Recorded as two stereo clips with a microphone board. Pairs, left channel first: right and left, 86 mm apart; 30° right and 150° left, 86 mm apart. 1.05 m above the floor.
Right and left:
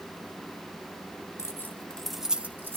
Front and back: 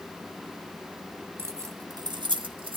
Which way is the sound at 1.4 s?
145° right.